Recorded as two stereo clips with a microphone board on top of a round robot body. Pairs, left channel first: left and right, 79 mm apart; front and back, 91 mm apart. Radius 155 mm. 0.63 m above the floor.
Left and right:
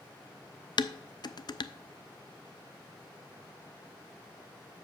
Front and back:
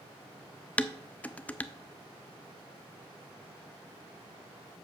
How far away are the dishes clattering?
About 0.6 m.